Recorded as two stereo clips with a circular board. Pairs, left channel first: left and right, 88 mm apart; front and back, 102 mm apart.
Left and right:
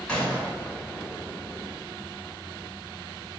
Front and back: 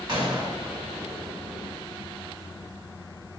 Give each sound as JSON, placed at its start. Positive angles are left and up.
{"t": 0.1, "sound": "a gunshot", "azimuth_deg": 165, "distance_m": 2.0}